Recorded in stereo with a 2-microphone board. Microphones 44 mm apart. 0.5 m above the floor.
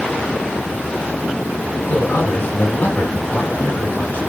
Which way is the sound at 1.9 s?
70° left (ahead or behind).